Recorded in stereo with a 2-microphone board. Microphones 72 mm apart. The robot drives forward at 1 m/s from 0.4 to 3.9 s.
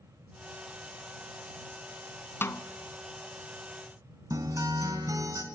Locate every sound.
2.4 s a snare drum: 30° left (ahead or behind), 0.6 m; by 2.6 s 40° left (ahead or behind), 0.5 m
4.3 s a guitar: 50° right (ahead or behind), 1.7 m